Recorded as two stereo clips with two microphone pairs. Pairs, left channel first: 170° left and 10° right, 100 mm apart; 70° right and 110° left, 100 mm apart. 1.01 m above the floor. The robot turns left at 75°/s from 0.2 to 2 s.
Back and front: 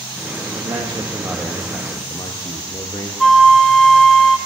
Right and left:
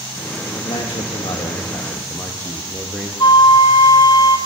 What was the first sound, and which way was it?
A man speaking, 30° right.